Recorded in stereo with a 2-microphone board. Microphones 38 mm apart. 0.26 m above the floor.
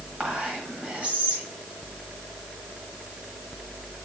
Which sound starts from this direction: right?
Whispering, at 0.2 s.